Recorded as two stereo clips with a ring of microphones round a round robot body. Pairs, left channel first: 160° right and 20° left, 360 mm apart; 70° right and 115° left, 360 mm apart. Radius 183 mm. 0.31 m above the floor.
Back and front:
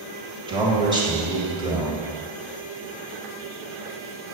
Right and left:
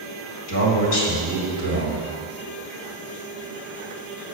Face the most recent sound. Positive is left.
turn(degrees=-50)